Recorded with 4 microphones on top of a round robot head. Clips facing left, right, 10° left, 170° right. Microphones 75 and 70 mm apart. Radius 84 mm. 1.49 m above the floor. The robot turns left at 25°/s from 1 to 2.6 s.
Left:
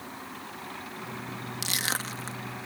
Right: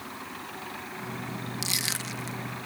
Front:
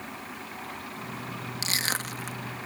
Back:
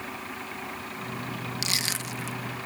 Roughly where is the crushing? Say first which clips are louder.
Left 2 dB, front 1 dB; ahead left.